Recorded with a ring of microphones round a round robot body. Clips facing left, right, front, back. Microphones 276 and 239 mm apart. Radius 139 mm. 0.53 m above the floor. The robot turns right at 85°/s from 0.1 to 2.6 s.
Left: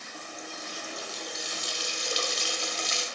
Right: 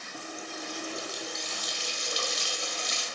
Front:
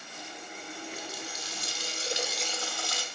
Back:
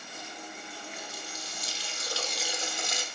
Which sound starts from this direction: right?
A running tap, at 0.1 s.